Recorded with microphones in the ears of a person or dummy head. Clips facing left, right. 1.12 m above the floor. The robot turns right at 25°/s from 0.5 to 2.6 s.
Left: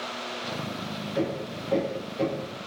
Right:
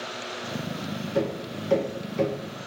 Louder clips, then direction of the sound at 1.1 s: Right 1 dB; 55° right (ahead or behind).